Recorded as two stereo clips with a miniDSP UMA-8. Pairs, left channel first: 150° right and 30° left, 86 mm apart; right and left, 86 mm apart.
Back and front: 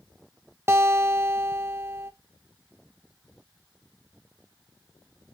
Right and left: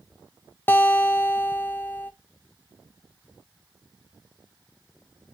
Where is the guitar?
25° right, 0.7 m.